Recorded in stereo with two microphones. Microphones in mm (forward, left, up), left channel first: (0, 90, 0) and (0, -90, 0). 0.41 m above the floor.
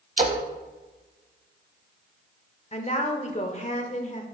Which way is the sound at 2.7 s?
40° left (ahead or behind).